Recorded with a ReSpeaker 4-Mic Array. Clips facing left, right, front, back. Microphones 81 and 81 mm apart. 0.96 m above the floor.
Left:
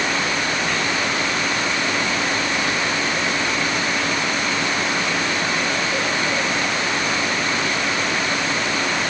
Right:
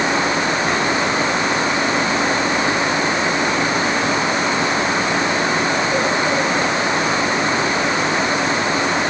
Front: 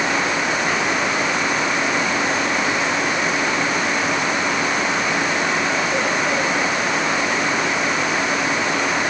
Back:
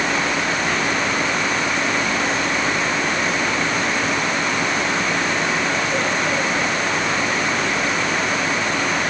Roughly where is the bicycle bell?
No bicycle bell in this recording.